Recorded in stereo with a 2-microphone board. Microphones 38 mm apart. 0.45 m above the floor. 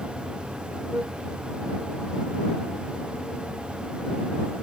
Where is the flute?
70° right (ahead or behind).